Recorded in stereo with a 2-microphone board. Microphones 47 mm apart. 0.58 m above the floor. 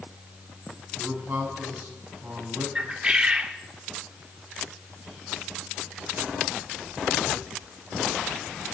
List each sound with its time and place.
1.0 s a man speaking: 50° right (ahead or behind), 5.5 m
2.8 s a bird: 20° right (ahead or behind), 0.9 m